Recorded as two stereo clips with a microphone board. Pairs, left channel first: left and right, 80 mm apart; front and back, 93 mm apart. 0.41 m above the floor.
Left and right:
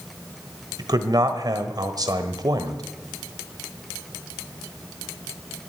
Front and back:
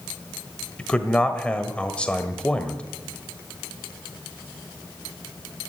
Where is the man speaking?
75° right, 1.4 m.